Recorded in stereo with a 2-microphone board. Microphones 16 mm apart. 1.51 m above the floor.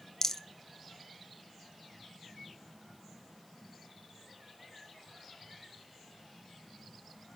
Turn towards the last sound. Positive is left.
turn(degrees=30)  # may be behind; listen again after turning